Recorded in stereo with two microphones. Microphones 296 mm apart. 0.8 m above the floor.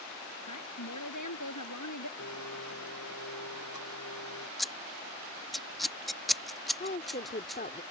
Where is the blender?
70° left (ahead or behind).